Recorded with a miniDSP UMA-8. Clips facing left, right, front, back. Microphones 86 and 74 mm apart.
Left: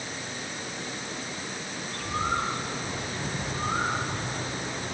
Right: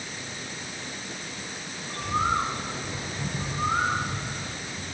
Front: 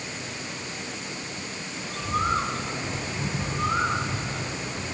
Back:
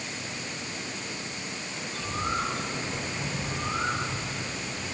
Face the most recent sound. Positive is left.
turn(degrees=-25)